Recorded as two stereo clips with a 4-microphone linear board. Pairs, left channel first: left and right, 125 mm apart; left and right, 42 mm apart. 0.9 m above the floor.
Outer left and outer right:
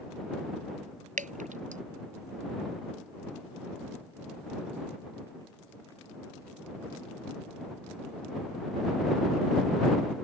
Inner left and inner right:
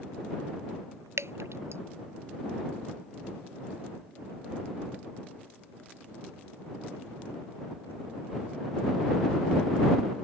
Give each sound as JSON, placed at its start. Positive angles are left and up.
{"t": 1.2, "sound": "dripping", "side_deg": -85}